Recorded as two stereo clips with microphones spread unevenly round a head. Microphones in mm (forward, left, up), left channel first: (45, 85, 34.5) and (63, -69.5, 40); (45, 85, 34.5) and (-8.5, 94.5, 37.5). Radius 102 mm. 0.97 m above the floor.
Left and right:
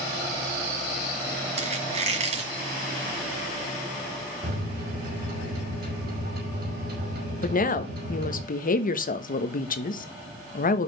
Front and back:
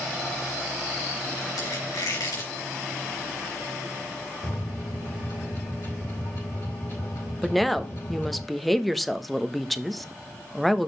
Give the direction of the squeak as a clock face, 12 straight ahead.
1 o'clock.